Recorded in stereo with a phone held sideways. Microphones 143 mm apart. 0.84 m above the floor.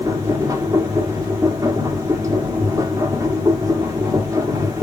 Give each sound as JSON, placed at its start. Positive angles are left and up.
{"t": 0.0, "sound": "a machine running", "side_deg": -25, "distance_m": 1.0}